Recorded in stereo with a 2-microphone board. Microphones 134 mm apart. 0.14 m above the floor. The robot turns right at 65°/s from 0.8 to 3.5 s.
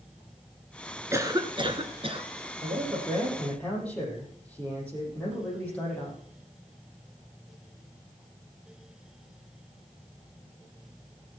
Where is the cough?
150° right, 1.8 m; by 2.3 s 75° right, 1.8 m.